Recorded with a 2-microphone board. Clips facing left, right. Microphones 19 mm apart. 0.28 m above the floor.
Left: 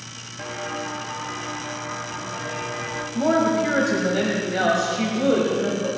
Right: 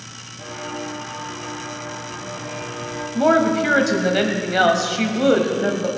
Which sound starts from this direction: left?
Footsteps, at 0.4 s.